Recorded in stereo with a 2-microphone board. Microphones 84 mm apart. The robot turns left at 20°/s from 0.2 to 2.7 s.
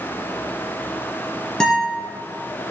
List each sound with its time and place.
1.6 s a guitar: 5° left (ahead or behind), 2.5 m; by 2.0 s centre (ahead or behind), 2.5 m